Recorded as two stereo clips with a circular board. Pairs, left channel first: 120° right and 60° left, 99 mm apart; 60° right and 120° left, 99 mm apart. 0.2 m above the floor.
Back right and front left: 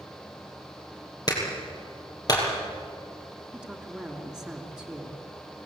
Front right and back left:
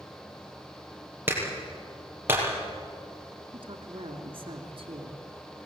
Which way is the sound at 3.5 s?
145° left.